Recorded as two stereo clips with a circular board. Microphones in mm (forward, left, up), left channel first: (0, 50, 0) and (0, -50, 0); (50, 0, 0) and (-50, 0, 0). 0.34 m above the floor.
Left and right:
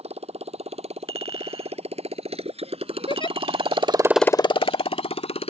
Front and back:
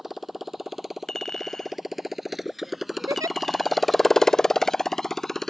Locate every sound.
0.0 s a motorcycle: 90° right; by 5.5 s 85° left
1.1 s a clink: 85° right
3.1 s a giggle: 125° left